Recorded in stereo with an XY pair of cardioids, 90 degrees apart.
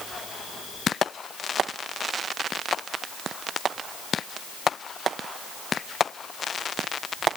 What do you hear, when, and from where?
Only background noise.